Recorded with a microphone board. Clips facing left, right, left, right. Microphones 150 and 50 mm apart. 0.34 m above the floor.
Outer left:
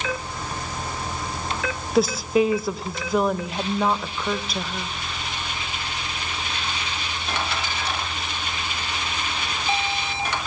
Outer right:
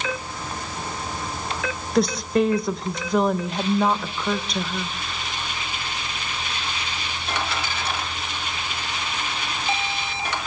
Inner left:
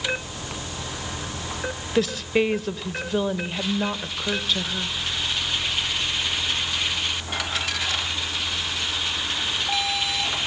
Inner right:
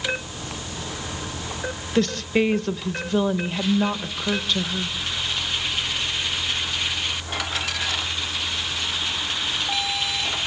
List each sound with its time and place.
1.9 s a woman speaking: 5° left (ahead or behind), 0.9 m